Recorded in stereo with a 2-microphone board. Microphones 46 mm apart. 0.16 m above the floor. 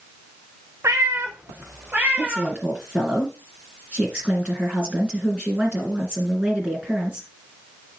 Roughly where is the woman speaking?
Right.